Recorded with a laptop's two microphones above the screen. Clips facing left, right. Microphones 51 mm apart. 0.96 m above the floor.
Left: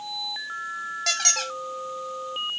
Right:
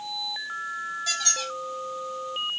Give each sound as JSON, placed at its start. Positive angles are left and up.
{"t": 1.1, "sound": "a squeak", "side_deg": 70, "distance_m": 0.5}